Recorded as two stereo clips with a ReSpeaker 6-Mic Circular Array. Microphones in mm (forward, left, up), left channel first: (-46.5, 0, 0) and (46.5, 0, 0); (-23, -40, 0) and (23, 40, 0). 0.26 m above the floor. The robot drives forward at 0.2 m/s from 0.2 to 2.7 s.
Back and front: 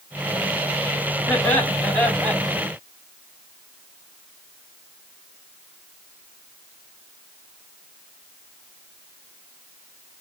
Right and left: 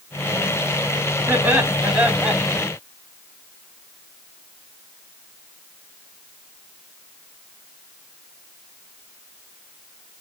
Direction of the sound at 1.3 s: 115° left.